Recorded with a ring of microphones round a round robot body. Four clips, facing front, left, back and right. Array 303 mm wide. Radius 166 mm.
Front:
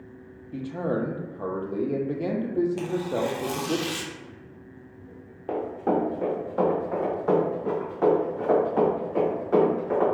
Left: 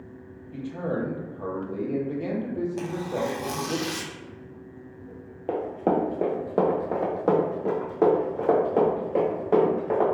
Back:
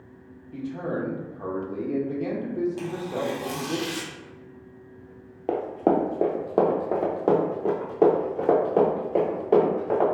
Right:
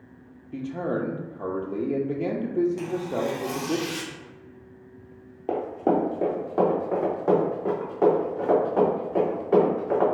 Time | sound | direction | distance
0.5 | a man speaking | 40° right | 0.8 m
2.8 | tearing paper | 55° left | 0.7 m
5.5 | running footsteps | straight behind | 0.7 m